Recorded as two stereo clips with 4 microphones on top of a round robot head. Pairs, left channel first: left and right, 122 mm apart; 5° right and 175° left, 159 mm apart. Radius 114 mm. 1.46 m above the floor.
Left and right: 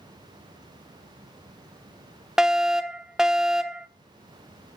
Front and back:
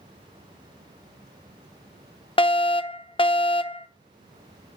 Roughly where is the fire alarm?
Ahead.